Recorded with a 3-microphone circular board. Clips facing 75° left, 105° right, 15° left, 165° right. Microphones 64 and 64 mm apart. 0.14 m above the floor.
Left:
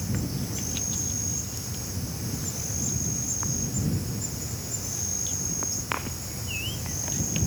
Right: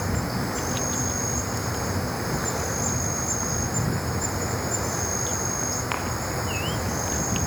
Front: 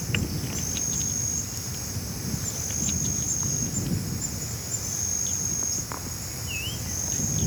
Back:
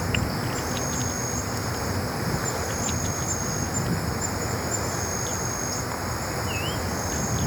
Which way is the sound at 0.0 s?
130° right.